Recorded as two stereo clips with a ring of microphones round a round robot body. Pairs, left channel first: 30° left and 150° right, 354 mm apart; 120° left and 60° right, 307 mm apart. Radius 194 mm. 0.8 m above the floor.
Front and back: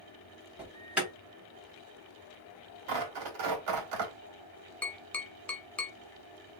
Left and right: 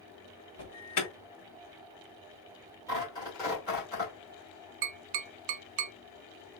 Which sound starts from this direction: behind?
Tearing paper, at 2.9 s.